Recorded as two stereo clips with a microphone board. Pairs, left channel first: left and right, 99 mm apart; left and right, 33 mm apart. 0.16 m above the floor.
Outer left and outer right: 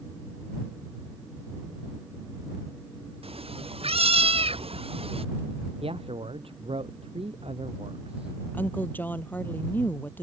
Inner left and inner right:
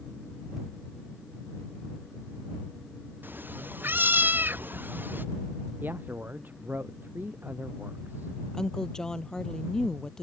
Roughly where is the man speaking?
Right.